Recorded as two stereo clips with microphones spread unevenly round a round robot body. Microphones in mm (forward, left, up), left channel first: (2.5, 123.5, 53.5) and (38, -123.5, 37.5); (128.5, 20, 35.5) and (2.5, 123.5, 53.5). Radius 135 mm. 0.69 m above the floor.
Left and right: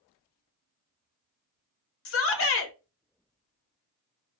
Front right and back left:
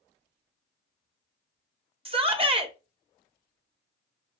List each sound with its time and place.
2.0 s a shout: 90° left, 0.9 m